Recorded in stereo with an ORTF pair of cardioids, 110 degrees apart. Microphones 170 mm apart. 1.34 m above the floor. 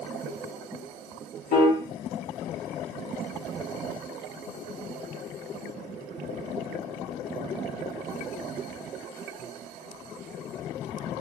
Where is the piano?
60° left, 0.9 m.